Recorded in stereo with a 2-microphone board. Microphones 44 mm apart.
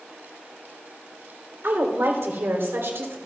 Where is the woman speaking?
70° right (ahead or behind), 2.0 m.